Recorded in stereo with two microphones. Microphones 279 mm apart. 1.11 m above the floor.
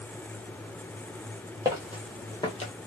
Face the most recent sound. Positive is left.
turn(degrees=25)  # may be behind; listen again after turning